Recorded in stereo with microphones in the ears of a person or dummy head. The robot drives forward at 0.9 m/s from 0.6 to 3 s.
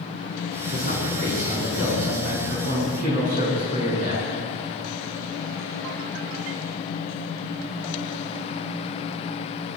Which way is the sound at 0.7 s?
60° right (ahead or behind).